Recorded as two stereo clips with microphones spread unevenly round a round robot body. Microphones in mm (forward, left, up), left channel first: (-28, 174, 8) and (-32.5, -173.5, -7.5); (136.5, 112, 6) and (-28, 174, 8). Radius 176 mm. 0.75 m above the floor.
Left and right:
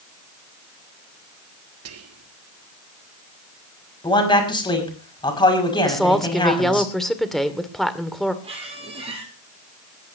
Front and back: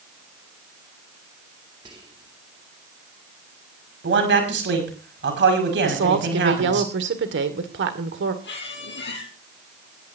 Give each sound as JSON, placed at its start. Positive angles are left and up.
{"t": 1.9, "sound": "whispering", "azimuth_deg": -130, "distance_m": 1.8}
{"t": 4.0, "sound": "a man speaking", "azimuth_deg": 165, "distance_m": 5.5}
{"t": 5.8, "sound": "a woman speaking", "azimuth_deg": 180, "distance_m": 1.9}
{"t": 8.4, "sound": "a squeak", "azimuth_deg": -15, "distance_m": 3.5}